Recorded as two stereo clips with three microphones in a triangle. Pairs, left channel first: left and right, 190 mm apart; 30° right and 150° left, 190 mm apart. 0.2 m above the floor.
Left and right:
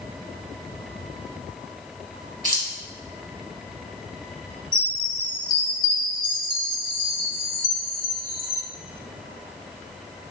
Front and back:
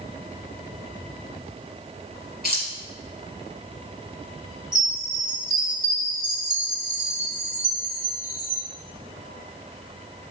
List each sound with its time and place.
2.4 s keys jangling: 35° right, 1.5 m
4.7 s a chime: 65° left, 1.0 m